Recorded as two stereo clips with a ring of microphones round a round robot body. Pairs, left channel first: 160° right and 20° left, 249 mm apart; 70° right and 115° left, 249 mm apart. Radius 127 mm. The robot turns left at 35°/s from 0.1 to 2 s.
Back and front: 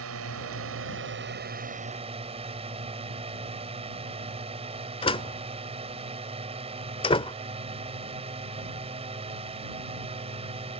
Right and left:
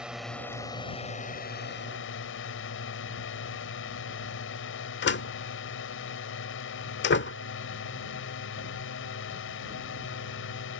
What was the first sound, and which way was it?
A drone, 25° left.